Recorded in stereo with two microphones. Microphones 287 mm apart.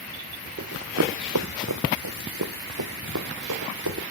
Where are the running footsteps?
55° right (ahead or behind), 0.9 m; by 4.0 s 80° right, 2.5 m.